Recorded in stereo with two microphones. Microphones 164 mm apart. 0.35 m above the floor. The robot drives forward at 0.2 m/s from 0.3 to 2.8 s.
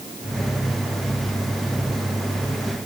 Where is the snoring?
No snoring in this recording.